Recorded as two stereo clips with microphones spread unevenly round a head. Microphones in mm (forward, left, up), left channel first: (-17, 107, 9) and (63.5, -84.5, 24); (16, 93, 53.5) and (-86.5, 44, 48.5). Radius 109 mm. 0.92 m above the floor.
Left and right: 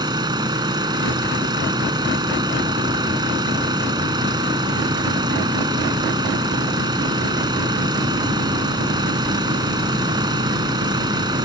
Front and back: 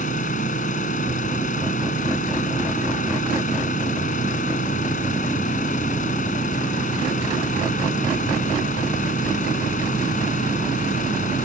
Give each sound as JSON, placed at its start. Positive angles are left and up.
{"t": 0.0, "sound": "an engine running", "azimuth_deg": 5}